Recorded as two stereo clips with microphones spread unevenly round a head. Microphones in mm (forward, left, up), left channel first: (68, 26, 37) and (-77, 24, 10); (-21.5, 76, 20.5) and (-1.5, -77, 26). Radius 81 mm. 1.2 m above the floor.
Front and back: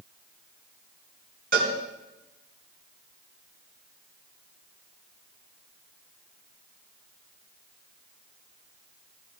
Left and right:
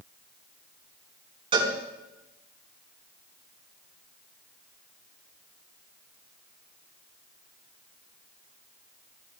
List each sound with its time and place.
1.5 s a cowbell: 140° right, 4.5 m